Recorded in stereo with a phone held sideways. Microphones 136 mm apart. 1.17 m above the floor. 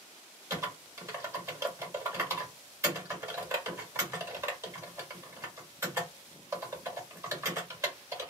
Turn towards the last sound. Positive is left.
turn(degrees=-20)  # may be behind; listen again after turning